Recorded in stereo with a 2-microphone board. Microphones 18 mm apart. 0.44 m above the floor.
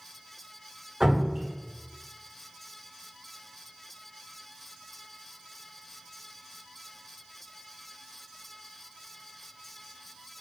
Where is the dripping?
45° right (ahead or behind), 1.8 m.